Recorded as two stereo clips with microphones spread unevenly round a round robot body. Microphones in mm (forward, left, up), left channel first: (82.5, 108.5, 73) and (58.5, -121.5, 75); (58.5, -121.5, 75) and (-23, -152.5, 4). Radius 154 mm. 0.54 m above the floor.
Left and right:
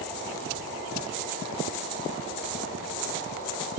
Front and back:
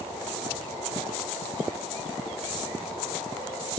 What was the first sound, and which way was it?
Only background noise.